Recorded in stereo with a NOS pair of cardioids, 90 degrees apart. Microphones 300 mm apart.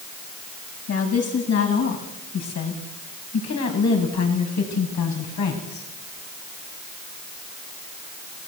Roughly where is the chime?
I don't hear a chime.